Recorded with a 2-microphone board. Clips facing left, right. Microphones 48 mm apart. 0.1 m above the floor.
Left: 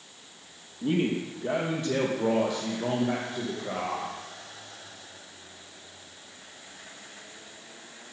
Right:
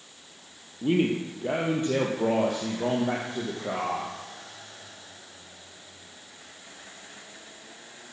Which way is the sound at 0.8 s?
20° right (ahead or behind).